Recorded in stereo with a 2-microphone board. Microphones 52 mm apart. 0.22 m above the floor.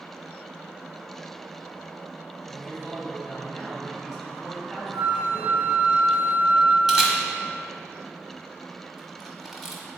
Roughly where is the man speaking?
Centre.